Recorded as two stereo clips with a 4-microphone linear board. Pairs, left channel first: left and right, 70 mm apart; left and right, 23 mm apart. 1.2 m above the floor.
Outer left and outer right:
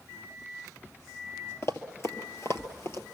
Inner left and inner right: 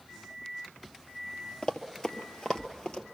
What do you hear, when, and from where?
1.6 s running footsteps: 40° left (ahead or behind), 1.6 m